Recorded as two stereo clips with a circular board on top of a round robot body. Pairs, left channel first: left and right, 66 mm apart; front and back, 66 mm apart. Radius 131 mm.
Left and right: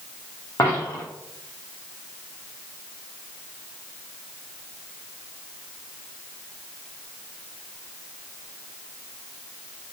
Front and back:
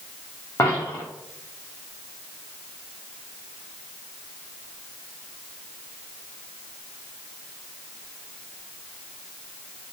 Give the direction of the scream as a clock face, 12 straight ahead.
I don't hear a scream.